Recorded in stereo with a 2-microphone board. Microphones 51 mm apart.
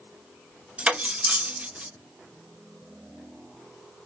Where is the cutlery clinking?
25° right (ahead or behind), 0.7 m.